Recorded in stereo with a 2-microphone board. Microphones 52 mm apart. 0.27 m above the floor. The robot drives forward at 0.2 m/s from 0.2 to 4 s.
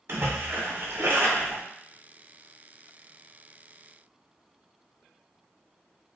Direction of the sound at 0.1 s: 50° right (ahead or behind).